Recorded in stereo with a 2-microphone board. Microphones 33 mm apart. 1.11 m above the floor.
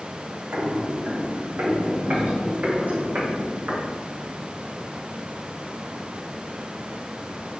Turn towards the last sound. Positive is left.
turn(degrees=-50)  # may be behind; listen again after turning